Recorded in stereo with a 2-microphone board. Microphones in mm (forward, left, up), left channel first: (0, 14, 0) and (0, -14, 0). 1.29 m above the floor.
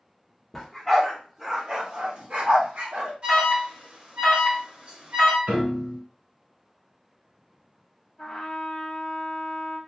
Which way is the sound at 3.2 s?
45° right (ahead or behind).